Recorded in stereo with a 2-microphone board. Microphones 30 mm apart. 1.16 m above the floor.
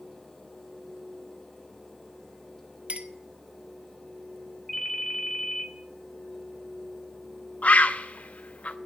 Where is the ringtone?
10° left (ahead or behind), 1.7 m.